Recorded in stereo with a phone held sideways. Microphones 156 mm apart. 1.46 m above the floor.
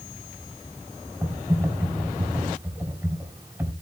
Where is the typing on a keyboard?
10° right (ahead or behind), 5.5 m.